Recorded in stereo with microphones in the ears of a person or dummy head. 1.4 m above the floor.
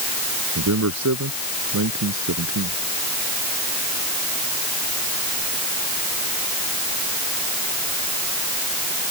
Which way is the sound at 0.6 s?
85° right.